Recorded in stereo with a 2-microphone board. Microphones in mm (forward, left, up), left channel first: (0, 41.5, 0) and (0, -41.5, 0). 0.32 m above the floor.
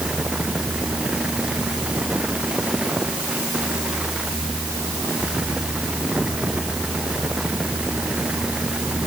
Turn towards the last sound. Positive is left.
No sound to turn to.